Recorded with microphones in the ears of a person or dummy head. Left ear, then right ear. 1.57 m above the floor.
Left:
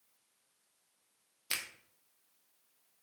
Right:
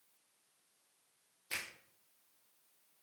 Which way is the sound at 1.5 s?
50° left (ahead or behind).